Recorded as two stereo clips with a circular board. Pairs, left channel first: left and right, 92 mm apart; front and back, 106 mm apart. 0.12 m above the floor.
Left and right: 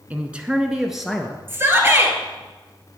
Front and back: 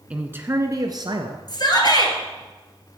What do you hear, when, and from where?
0.1 s a man speaking: 125° right, 1.1 m; by 1.4 s 175° left, 1.6 m
1.5 s a shout: 30° right, 2.5 m